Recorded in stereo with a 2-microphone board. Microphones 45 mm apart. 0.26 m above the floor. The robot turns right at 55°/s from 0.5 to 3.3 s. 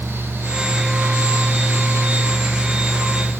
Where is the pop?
I don't hear a pop.